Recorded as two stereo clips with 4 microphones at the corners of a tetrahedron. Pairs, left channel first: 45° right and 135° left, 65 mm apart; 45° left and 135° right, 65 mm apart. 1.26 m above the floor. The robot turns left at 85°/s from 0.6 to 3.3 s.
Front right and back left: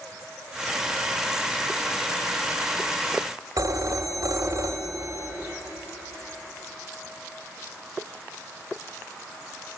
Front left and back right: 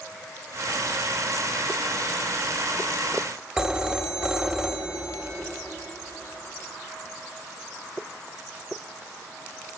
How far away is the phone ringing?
About 1.8 m.